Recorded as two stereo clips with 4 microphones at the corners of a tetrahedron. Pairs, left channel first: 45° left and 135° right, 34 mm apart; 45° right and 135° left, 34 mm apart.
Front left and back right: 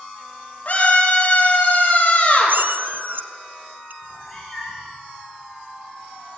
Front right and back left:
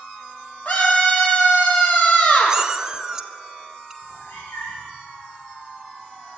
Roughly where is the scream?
Ahead.